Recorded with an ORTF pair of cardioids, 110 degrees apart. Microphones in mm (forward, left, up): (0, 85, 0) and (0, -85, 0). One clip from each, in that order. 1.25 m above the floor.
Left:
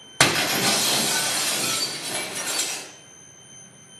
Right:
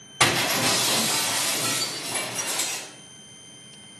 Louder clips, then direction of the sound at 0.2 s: Left 1 dB; 60° left.